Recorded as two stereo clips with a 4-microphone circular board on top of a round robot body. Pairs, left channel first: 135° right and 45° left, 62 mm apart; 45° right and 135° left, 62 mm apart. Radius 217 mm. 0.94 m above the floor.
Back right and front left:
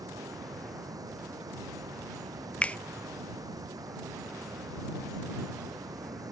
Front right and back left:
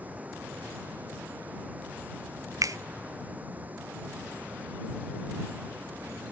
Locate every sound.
0.0 s running water: 70° left
2.6 s a finger snap: 155° left